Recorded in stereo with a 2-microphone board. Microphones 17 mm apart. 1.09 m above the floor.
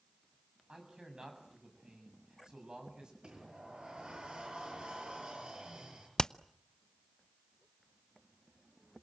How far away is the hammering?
About 0.6 m.